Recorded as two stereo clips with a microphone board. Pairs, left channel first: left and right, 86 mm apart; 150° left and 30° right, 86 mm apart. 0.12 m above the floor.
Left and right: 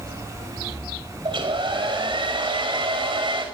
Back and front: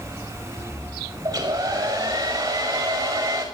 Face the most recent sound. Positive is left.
turn(degrees=-85)